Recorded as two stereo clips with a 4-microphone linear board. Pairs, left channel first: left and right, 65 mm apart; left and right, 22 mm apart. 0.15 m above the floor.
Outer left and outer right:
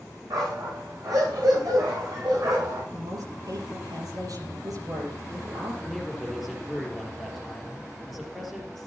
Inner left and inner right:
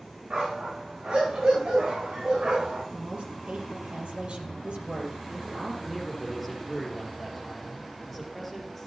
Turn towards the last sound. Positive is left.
turn(degrees=0)  # may be behind; listen again after turning